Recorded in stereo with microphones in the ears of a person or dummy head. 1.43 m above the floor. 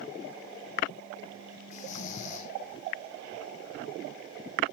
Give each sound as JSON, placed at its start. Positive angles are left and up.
{"t": 1.7, "sound": "snoring", "side_deg": 35, "distance_m": 0.8}